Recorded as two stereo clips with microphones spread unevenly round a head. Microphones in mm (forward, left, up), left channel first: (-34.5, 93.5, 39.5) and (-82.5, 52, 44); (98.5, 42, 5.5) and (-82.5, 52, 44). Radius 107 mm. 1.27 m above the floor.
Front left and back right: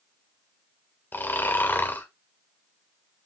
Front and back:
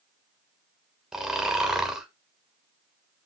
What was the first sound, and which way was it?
Snoring, 95° left.